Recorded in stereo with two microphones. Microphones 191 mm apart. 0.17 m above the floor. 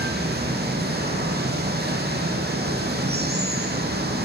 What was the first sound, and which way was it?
Running water, 60° right (ahead or behind).